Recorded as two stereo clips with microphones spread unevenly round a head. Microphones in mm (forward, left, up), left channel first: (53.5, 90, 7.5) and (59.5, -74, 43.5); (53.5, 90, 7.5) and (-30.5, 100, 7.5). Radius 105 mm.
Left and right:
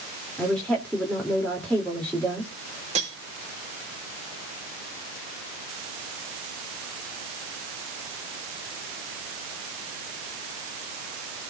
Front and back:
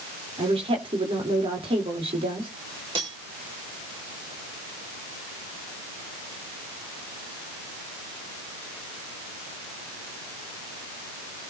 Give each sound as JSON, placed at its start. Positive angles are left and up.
{"t": 0.4, "sound": "a woman speaking", "azimuth_deg": 180, "distance_m": 3.5}
{"t": 3.0, "sound": "cutlery clinking", "azimuth_deg": -145, "distance_m": 4.0}